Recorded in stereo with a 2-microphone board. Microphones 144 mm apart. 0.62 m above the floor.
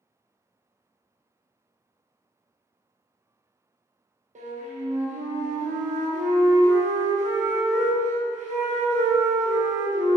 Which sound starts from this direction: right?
A flute, at 4.3 s.